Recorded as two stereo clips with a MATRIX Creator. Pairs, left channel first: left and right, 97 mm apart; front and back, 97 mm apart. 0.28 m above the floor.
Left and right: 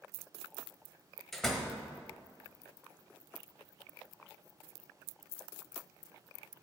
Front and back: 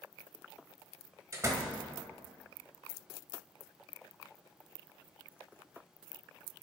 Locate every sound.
1.3 s a door slam: 175° left, 1.2 m